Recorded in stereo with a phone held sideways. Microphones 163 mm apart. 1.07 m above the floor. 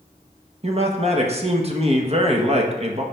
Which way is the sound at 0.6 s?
40° right (ahead or behind).